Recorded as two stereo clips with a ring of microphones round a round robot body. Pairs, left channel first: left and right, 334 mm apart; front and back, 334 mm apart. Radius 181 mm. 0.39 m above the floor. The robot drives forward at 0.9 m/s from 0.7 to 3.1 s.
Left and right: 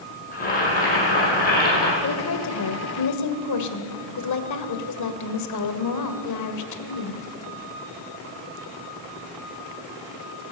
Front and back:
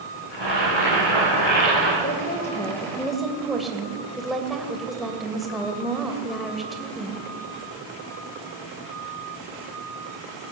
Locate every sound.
0.3 s boiling: 25° left, 9.5 m; by 1.9 s 30° left, 8.5 m
2.0 s a woman speaking: 55° left, 2 m; by 7.3 s 90° left, 1.9 m